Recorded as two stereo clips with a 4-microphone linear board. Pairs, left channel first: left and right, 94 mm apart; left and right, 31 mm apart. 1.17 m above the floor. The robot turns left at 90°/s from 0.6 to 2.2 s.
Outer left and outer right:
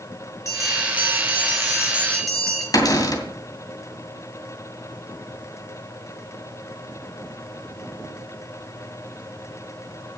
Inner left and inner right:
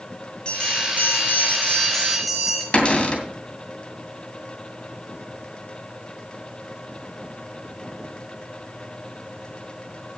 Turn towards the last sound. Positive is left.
turn(degrees=40)  # may be behind; listen again after turning